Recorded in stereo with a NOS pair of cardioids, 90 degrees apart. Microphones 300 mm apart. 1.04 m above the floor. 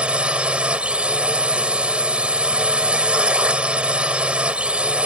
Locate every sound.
0.0 s a drone: 5° right